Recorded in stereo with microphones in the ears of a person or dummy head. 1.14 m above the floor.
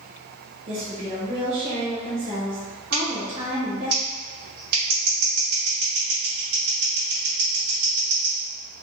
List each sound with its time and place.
0.7 s a woman speaking: 40° right (ahead or behind), 1.0 m
2.9 s scissors: 60° right (ahead or behind), 1.8 m